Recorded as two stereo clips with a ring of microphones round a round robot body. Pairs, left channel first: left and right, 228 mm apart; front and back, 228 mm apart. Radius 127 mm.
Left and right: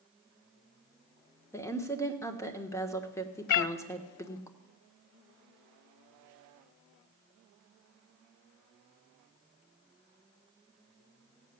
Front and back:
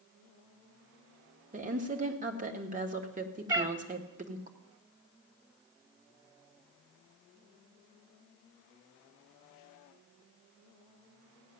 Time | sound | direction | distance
1.5 | a woman speaking | 160° left | 1.4 m
3.5 | a cat meowing | 105° left | 0.5 m